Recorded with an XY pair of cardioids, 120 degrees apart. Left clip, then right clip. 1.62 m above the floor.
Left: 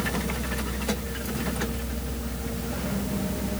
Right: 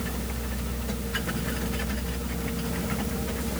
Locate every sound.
Only background noise.